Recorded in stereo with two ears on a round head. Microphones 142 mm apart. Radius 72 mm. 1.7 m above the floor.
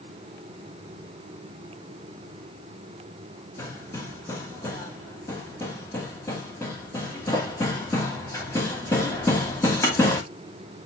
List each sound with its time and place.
3.6 s hammering: 15° left (ahead or behind), 2.5 m